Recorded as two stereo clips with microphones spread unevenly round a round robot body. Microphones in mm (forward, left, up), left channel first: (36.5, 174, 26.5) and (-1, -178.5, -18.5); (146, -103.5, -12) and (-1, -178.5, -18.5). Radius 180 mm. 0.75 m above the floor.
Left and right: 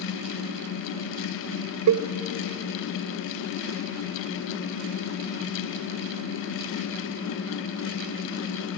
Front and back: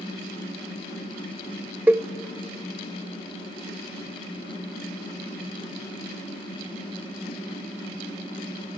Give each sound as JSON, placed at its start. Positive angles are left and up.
{"t": 1.9, "sound": "a cowbell", "azimuth_deg": -75, "distance_m": 0.6}